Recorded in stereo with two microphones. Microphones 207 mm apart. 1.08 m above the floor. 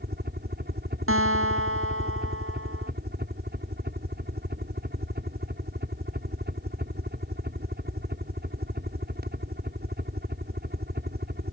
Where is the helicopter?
50° right (ahead or behind).